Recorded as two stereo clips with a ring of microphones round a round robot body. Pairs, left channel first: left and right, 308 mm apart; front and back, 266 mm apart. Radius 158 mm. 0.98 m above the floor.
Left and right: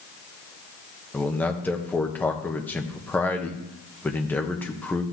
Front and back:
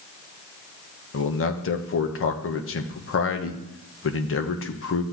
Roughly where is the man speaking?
Ahead.